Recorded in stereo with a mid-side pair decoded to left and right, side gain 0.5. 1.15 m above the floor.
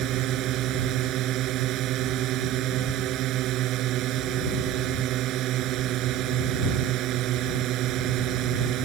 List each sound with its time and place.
0.0 s a drone: 70° right